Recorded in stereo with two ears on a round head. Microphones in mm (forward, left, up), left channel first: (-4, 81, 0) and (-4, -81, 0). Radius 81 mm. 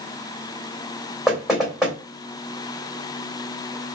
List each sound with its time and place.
1.3 s knocking: centre (ahead or behind), 2.5 m